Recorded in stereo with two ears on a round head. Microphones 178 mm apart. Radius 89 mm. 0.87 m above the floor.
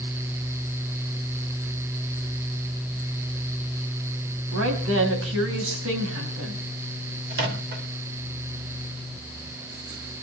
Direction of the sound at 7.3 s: 55° right (ahead or behind).